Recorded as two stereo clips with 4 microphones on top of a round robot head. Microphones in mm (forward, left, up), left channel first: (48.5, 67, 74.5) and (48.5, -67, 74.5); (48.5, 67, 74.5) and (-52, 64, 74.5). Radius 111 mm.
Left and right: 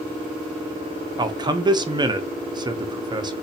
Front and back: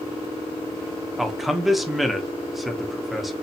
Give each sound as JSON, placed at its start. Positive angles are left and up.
{"t": 1.2, "sound": "a man speaking", "azimuth_deg": -90, "distance_m": 0.8}